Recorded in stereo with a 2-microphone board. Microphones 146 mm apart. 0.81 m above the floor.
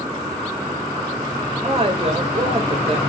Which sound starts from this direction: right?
A woman speaking, at 1.6 s.